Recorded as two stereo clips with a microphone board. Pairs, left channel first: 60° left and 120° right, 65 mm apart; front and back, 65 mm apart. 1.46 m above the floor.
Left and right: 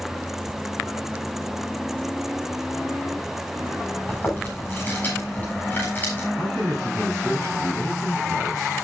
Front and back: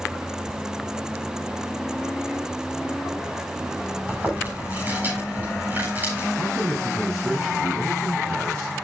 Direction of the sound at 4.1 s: 120° left.